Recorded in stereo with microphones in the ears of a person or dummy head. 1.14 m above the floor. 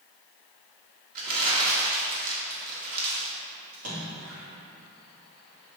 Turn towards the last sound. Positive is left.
turn(degrees=-75)  # may be behind; listen again after turning